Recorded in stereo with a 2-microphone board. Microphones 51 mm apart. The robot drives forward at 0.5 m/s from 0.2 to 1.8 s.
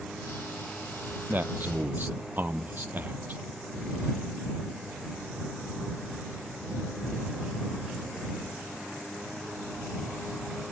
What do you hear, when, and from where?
1.3 s a man speaking: 40° right (ahead or behind); by 3.4 s 35° right (ahead or behind)